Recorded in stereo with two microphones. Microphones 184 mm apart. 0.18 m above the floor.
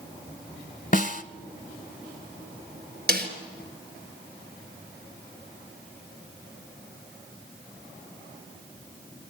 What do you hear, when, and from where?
0.9 s a snare drum: 45° left (ahead or behind), 0.7 m
3.1 s a snare drum: 60° right (ahead or behind), 3.5 m